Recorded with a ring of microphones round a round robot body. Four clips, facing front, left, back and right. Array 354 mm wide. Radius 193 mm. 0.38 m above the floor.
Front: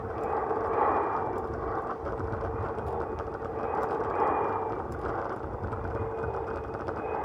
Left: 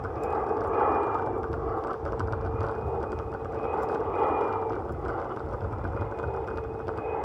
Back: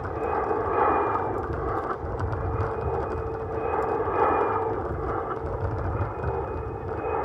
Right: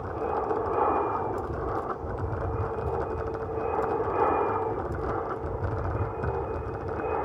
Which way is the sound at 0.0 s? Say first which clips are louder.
Even, back 3 dB; 175° left.